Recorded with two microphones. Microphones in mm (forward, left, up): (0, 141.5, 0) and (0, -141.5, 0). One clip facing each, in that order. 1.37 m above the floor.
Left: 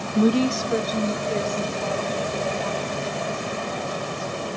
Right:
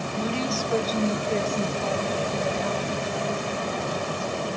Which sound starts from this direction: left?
A woman speaking, at 0.1 s.